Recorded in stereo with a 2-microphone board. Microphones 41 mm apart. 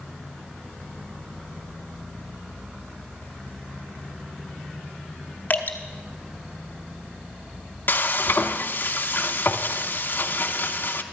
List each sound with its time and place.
5.5 s dripping: 45° left (ahead or behind), 1.1 m
7.9 s frying: 55° left (ahead or behind), 0.7 m